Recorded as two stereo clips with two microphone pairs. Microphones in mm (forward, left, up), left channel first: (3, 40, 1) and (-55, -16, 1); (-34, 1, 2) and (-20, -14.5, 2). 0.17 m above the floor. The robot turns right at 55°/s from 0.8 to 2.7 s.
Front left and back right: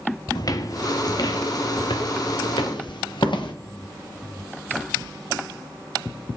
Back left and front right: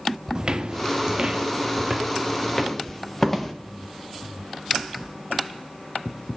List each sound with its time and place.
0.3 s footsteps: 10° left, 1.1 m; by 3.5 s 60° left, 2 m